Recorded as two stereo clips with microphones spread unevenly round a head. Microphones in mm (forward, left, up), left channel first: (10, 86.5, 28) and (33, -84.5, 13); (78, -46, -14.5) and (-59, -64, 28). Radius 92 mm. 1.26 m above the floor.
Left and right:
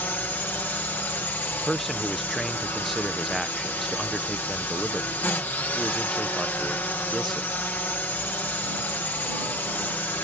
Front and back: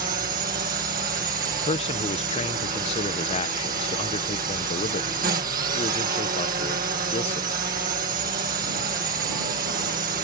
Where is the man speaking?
5° left.